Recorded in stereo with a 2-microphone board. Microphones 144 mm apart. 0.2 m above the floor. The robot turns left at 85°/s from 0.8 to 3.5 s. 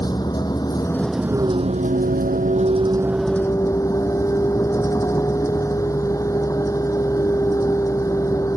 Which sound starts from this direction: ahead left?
A vehicle, at 0.0 s.